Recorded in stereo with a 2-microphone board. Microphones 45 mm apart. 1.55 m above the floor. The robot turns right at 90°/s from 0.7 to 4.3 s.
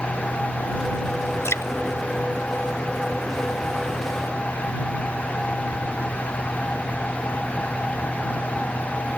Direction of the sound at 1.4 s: 70° left (ahead or behind).